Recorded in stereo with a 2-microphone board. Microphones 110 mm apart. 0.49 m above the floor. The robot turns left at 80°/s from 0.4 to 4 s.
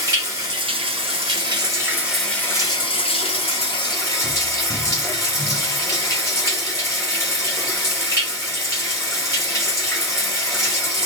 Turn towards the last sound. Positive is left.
turn(degrees=35)